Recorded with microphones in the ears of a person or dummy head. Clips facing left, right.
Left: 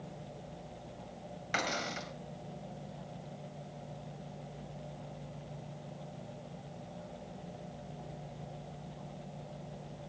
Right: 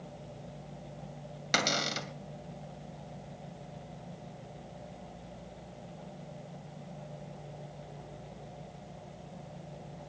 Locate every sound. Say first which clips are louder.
1.5 s a cupboard door: right 4 dB; 55° right (ahead or behind), 2.5 m